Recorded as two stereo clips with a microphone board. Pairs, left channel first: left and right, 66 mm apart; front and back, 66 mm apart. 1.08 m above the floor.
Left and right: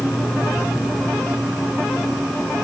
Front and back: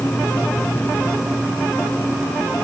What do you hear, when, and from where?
Only background noise.